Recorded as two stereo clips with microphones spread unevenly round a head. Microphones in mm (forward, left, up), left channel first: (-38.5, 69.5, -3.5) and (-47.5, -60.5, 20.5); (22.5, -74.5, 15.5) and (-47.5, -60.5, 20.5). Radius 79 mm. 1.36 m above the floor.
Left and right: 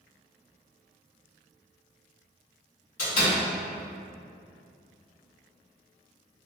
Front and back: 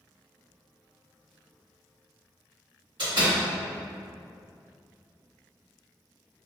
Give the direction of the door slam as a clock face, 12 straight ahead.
8 o'clock.